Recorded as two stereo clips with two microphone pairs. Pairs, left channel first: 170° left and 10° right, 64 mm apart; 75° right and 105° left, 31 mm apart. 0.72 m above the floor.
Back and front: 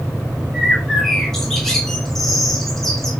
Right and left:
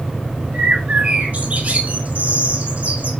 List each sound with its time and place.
0.5 s a bird: 80° left, 1.9 m